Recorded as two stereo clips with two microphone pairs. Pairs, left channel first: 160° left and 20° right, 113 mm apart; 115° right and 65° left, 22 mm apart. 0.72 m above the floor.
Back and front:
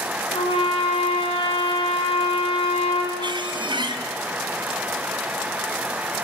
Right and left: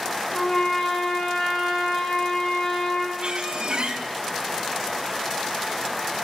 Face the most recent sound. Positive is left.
turn(degrees=25)